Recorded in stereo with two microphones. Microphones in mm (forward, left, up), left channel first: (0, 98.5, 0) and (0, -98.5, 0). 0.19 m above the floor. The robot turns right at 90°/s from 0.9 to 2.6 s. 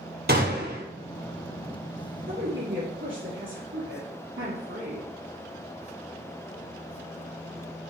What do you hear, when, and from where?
0.3 s a gunshot: 50° right (ahead or behind), 2.5 m
2.3 s a woman speaking: 115° right, 3.5 m; by 5.1 s 85° right, 3.5 m